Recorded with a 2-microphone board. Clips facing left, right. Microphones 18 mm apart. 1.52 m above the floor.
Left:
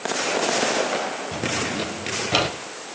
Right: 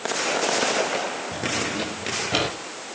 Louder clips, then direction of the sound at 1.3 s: Left 1 dB; 20° left (ahead or behind).